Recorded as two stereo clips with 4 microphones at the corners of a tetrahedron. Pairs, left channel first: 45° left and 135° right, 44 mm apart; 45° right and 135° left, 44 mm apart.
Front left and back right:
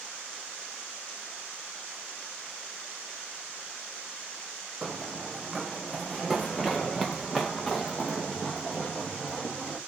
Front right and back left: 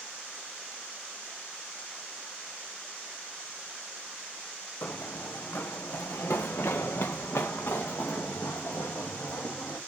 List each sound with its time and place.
4.8 s running footsteps: 55° right, 0.6 m; by 9.8 s 45° right, 3 m